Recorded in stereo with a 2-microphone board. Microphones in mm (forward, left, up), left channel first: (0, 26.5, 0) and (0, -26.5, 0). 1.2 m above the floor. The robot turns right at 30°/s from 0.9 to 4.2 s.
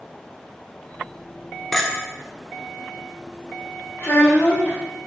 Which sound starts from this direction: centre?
A clink, at 1.7 s.